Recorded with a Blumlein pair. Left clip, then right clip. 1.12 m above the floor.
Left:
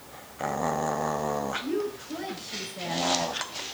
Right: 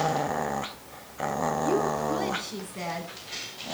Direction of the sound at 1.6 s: 70° right.